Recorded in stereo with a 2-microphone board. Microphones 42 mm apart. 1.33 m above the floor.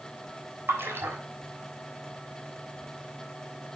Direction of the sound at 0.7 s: 80° right.